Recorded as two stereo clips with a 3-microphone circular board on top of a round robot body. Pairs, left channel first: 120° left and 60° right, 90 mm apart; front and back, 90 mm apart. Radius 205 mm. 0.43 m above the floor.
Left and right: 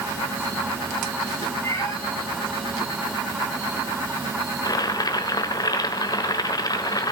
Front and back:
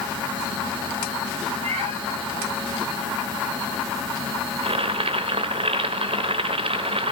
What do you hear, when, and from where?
1.6 s a cat meowing: straight behind, 6 m
4.6 s boiling: 165° left, 1.1 m